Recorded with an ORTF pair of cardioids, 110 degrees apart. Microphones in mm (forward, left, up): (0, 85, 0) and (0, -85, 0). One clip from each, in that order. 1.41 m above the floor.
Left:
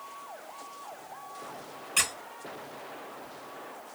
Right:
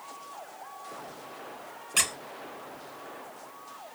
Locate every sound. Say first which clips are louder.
2.0 s a squeak: right 1 dB; 5° right, 0.8 m